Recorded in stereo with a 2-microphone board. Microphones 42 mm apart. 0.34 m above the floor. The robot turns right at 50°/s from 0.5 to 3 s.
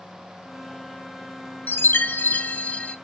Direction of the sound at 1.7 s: 90° left.